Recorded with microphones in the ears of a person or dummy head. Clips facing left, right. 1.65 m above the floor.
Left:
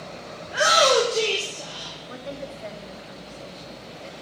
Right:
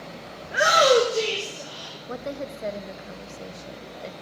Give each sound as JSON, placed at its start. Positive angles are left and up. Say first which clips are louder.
{"t": 0.4, "sound": "a shout", "louder": "right 1 dB", "side_deg": -30, "distance_m": 1.8}
{"t": 2.1, "sound": "a woman speaking", "louder": "right 3 dB", "side_deg": -50, "distance_m": 1.1}